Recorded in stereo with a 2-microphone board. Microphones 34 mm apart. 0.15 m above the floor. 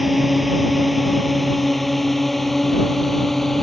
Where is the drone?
5° right (ahead or behind); by 3.6 s 5° left (ahead or behind).